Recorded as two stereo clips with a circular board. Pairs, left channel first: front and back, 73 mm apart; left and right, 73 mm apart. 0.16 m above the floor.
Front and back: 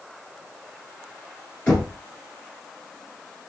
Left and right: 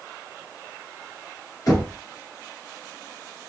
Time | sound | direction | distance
1.7 | knocking | 55° left | 2.5 m